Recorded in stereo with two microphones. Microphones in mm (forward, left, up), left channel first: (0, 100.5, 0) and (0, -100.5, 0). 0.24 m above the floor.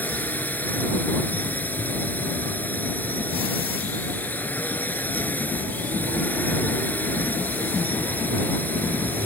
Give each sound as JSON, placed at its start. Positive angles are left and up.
{"t": 0.0, "sound": "a drone", "side_deg": 10}